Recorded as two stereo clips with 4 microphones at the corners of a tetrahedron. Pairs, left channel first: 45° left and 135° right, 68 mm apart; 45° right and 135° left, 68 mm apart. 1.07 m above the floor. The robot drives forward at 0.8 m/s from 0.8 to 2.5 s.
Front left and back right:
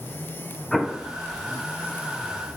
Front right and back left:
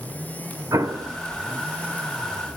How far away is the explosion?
About 1.1 m.